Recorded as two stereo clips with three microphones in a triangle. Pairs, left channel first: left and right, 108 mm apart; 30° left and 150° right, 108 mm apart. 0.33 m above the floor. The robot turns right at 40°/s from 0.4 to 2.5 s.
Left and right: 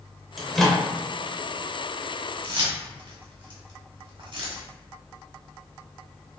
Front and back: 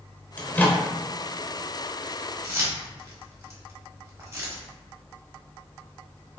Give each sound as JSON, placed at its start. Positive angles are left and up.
{"t": 0.4, "sound": "a microwave", "azimuth_deg": 0, "distance_m": 0.6}
{"t": 2.4, "sound": "keys jangling", "azimuth_deg": -95, "distance_m": 1.0}